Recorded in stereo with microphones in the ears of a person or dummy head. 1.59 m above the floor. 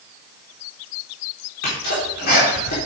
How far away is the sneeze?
About 4.5 m.